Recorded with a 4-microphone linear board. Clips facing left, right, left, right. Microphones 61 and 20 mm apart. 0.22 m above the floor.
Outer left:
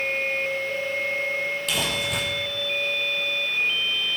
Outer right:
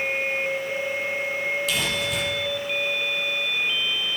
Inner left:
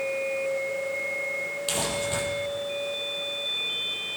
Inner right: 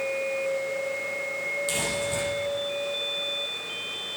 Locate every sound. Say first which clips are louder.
1.7 s crumpling: outer right 1 dB, even; 50° left (ahead or behind), 6.5 m